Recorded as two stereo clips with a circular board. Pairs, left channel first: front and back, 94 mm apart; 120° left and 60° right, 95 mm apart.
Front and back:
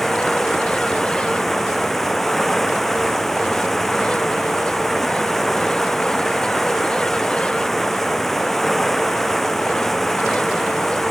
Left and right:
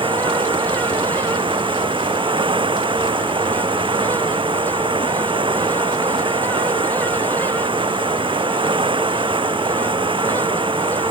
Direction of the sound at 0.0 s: 85° right.